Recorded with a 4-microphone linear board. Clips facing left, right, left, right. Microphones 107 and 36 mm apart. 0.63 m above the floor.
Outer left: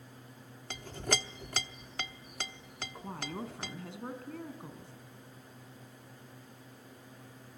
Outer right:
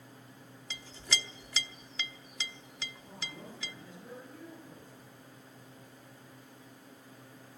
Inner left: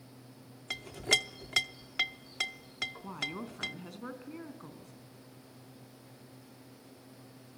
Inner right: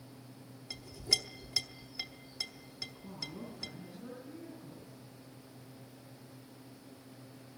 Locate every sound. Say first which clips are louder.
0.7 s a clink: outer left 6 dB, inner left 6 dB; 55° left (ahead or behind), 0.8 m
3.0 s a woman speaking: outer left 10 dB, inner left 6 dB; 70° left (ahead or behind), 5 m